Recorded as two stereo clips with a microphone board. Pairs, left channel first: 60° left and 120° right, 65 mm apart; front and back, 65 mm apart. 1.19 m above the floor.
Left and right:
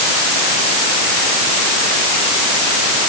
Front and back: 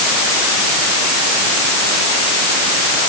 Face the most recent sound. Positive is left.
No sound to turn to.